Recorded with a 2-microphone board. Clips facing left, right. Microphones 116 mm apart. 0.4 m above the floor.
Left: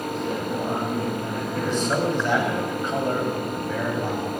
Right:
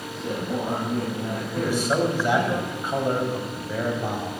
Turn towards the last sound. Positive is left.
turn(degrees=-10)  # may be behind; listen again after turning